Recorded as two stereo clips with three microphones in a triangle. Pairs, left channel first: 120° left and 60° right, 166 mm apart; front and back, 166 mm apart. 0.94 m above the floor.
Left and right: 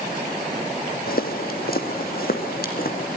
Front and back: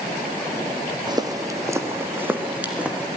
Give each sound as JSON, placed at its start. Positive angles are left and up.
{"t": 1.1, "sound": "footsteps", "azimuth_deg": 120, "distance_m": 2.0}